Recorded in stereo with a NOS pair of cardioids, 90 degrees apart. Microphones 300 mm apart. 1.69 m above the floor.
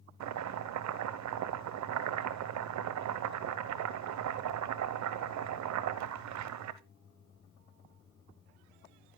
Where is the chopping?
65° right, 1.1 m.